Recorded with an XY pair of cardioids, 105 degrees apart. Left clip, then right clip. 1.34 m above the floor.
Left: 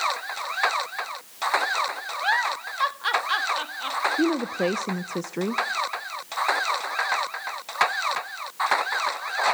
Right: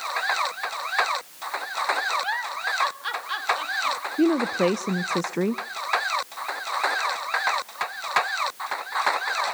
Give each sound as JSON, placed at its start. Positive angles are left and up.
{"t": 2.2, "sound": "a giggle", "azimuth_deg": 35, "distance_m": 1.5}
{"t": 4.2, "sound": "a woman speaking", "azimuth_deg": -15, "distance_m": 0.7}